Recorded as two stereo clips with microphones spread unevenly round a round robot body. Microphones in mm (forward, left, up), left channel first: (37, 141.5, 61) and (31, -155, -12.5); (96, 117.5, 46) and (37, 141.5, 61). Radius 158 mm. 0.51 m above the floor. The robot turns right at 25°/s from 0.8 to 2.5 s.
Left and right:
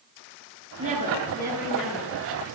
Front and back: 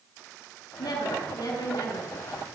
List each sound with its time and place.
0.8 s a woman speaking: 30° right, 7 m; by 2.1 s 5° left, 7 m